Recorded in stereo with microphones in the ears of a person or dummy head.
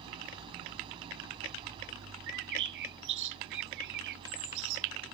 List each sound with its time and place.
0.0 s an engine running: 30° right (ahead or behind)
2.3 s a bird: 65° right (ahead or behind)